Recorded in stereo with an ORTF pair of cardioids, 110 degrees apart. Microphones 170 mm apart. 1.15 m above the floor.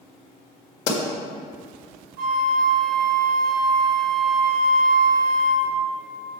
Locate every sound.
0.9 s a pop: 70° left, 1.9 m
2.2 s a flute: 60° right, 0.9 m